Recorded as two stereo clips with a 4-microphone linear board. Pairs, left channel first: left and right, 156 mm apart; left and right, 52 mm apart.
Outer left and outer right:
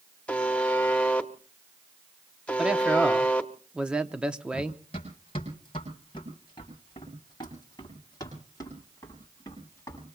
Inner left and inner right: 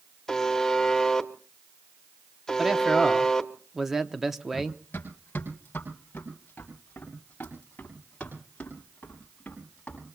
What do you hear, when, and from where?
0.3 s a buzzer: 10° left (ahead or behind), 0.9 m
2.6 s a man speaking: 5° right (ahead or behind), 0.8 m
4.5 s running footsteps: 45° left (ahead or behind), 6.5 m; by 10.1 s 20° left (ahead or behind), 7.5 m